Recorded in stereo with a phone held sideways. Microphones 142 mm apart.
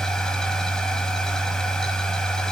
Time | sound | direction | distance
0.0 | a machine running | 5° left (ahead or behind) | 1.4 m